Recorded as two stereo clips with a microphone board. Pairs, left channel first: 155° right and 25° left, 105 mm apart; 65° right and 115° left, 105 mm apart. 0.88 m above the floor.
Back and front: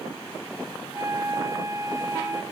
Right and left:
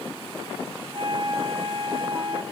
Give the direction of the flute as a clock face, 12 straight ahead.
9 o'clock.